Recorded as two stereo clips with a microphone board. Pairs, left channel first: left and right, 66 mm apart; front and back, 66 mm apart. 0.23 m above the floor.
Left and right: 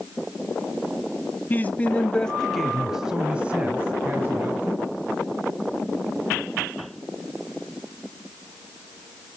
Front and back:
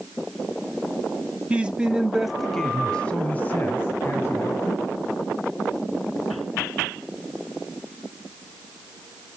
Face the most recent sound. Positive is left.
turn(degrees=-45)